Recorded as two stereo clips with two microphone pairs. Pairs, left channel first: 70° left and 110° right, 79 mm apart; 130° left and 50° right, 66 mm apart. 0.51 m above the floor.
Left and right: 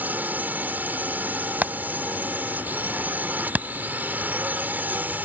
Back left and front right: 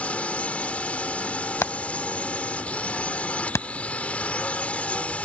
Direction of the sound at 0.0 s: 170° right.